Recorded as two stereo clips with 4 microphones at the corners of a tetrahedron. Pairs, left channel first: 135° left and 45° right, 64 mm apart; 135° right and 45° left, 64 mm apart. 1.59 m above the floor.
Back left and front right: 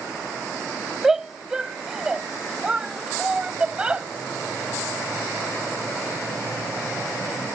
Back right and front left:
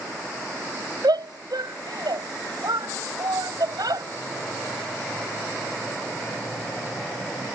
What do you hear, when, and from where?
1.0 s a shout: 40° left; by 4.0 s 30° left